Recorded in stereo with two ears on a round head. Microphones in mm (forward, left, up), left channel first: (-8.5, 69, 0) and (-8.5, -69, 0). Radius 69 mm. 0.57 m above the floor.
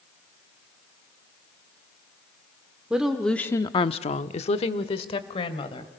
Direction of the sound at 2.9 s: 5° right (ahead or behind).